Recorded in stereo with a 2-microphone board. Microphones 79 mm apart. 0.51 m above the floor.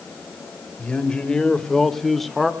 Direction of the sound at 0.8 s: 10° left (ahead or behind).